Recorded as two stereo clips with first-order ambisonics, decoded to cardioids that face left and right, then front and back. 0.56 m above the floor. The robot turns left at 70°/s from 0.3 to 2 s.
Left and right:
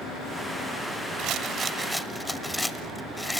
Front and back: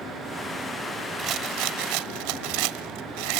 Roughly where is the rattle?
Behind right.